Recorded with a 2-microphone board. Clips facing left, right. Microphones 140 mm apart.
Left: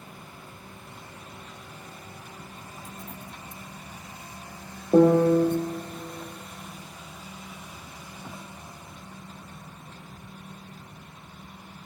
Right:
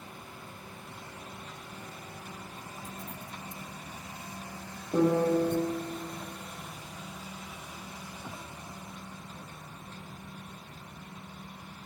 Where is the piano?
60° left (ahead or behind), 0.7 m.